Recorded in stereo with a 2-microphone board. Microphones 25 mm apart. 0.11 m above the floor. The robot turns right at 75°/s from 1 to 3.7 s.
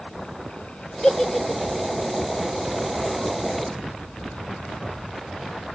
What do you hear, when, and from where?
1.0 s a giggle: 30° left (ahead or behind), 1.3 m; by 1.9 s 25° right (ahead or behind), 1.3 m